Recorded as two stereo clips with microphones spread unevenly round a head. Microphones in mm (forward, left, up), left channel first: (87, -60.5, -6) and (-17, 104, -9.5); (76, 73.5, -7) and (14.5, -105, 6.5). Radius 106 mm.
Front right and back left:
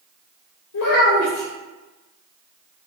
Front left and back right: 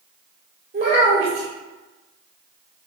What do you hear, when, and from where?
0.7 s a child speaking: 50° right, 0.8 m